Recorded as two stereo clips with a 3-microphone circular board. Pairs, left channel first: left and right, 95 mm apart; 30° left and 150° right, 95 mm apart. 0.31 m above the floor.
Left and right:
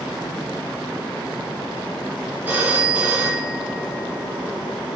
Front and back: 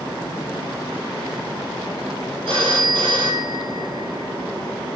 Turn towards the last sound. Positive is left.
turn(degrees=-165)